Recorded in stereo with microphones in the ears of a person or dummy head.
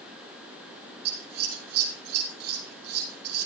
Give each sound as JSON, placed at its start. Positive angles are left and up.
{"t": 1.1, "sound": "scissors", "side_deg": -60, "distance_m": 4.5}